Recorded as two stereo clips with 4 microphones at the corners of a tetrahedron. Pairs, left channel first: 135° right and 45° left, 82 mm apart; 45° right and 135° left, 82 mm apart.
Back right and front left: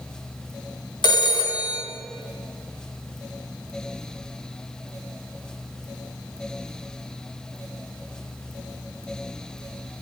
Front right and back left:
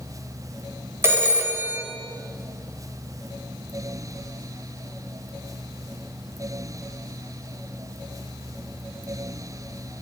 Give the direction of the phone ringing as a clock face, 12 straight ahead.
5 o'clock.